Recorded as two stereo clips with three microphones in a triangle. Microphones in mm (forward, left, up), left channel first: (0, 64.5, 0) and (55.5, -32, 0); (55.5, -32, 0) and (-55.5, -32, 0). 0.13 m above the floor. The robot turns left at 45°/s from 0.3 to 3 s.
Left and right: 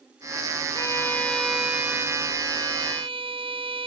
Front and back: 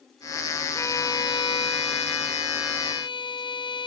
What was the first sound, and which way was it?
A violin, 65° left.